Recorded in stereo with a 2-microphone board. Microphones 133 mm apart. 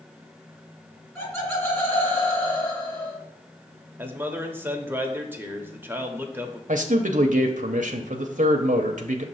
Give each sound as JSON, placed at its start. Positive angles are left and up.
{"t": 1.1, "sound": "laughter", "side_deg": 20, "distance_m": 3.0}
{"t": 4.0, "sound": "a man speaking", "side_deg": -15, "distance_m": 0.9}
{"t": 6.7, "sound": "a man speaking", "side_deg": -75, "distance_m": 0.7}